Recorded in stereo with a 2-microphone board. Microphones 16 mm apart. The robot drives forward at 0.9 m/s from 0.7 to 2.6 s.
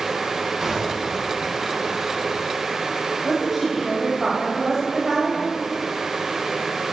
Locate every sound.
0.6 s a gunshot: 30° right (ahead or behind), 3.5 m; by 1.2 s 35° right (ahead or behind), 3 m
3.2 s a woman speaking: 25° right (ahead or behind), 1.8 m